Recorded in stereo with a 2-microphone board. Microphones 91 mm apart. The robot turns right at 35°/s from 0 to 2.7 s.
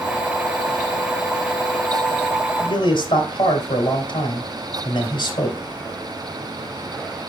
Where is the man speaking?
65° left (ahead or behind), 2.5 m.